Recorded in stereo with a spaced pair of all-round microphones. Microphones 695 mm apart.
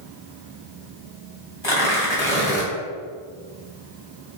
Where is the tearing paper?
40° left (ahead or behind), 2.5 m.